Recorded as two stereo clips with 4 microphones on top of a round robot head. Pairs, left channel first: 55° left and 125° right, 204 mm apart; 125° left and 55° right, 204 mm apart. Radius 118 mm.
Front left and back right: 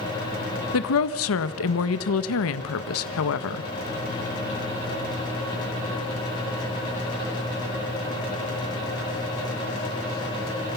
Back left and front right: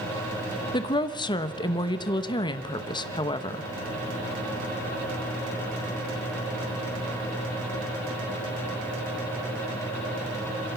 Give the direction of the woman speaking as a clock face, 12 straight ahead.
10 o'clock.